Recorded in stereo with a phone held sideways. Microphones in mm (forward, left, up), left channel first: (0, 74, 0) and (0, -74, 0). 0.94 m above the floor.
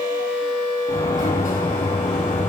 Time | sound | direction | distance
0.9 | a sliding door | 65° left (ahead or behind) | 6 m